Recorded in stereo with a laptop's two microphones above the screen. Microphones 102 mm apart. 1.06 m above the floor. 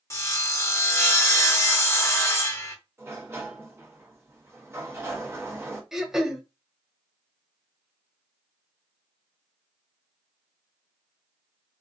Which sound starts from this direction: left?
Sawing, at 0.1 s.